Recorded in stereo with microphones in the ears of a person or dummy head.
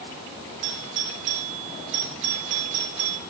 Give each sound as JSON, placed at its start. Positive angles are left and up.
{"t": 0.6, "sound": "a doorbell", "side_deg": -55, "distance_m": 1.5}